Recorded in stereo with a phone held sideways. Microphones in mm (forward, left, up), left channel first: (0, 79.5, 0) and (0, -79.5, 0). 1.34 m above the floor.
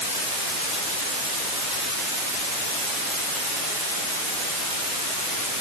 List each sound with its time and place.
Only background noise.